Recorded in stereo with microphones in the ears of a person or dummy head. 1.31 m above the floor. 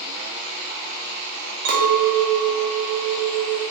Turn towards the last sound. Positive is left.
turn(degrees=-70)  # may be behind; listen again after turning